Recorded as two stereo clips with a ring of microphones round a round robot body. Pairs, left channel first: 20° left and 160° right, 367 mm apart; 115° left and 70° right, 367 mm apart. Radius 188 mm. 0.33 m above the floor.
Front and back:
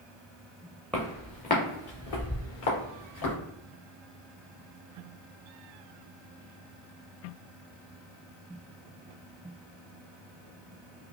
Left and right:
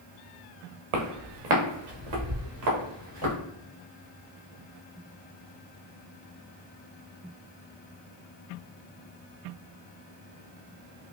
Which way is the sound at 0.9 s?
65° right.